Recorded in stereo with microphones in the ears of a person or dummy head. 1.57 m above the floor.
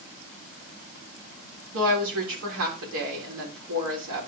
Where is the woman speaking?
80° right, 3.5 m.